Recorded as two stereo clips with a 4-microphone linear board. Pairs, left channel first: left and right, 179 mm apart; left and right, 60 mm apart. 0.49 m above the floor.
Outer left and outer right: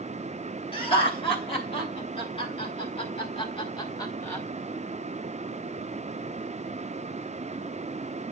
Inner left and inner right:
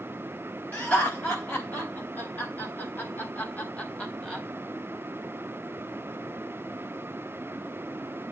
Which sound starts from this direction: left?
Laughter, at 0.7 s.